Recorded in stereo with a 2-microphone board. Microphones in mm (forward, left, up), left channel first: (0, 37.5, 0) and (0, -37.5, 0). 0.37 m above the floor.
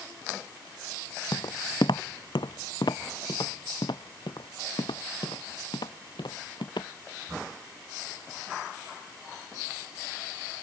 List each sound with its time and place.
1.3 s footsteps: 75° left (ahead or behind); by 6.9 s 80° left